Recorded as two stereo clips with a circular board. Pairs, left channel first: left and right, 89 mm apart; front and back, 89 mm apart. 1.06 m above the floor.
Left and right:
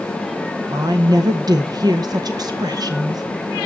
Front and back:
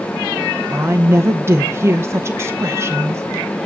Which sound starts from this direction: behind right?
A woman speaking, at 0.7 s.